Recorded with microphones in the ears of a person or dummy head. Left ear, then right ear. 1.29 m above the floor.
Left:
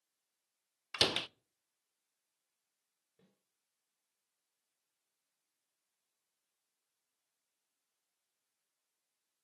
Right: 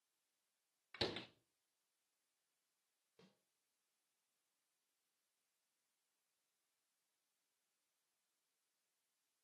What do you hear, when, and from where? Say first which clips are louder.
0.9 s a door slam: left 13 dB; 55° left (ahead or behind), 0.6 m
3.2 s a snare drum: right 3 dB; 50° right (ahead or behind), 4 m